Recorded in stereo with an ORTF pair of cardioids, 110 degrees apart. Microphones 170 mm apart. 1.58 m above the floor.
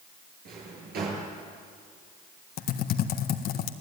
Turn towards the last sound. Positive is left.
turn(degrees=65)